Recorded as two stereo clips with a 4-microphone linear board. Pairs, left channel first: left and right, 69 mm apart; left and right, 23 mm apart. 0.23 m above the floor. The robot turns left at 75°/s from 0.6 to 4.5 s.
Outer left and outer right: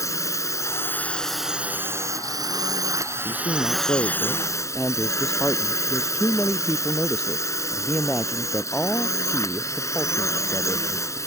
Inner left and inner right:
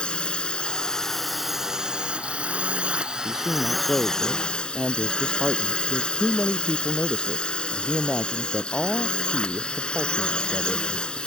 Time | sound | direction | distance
0.0 | a drone | 55° left | ?
3.2 | a woman speaking | 110° left | ?